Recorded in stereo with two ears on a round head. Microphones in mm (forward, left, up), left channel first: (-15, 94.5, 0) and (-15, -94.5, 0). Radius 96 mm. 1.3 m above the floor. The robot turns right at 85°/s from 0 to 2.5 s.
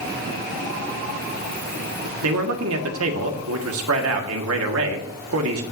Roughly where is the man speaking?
Right.